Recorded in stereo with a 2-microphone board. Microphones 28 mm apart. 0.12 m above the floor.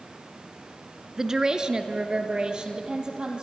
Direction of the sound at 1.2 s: 20° right (ahead or behind).